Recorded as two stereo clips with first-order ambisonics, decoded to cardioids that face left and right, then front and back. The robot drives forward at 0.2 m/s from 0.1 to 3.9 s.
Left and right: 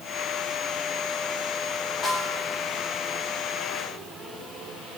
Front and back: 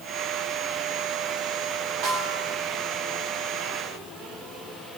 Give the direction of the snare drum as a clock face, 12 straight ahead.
7 o'clock.